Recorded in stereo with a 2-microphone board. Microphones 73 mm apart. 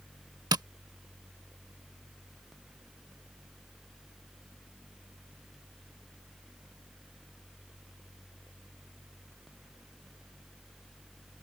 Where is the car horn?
I don't hear a car horn.